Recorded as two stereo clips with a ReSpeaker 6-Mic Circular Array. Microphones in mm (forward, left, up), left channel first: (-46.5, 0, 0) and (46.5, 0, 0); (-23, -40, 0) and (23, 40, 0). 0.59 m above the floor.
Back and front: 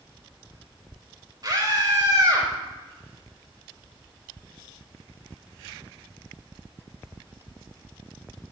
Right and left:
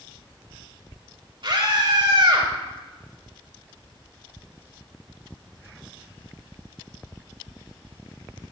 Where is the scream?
45° left, 3 m.